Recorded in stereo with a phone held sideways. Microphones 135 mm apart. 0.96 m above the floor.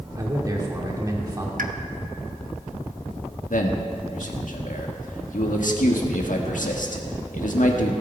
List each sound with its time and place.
0.2 s a man speaking: 25° right (ahead or behind), 2 m
1.6 s a pop: 85° right, 0.8 m
3.5 s a man speaking: 70° left (ahead or behind), 1.6 m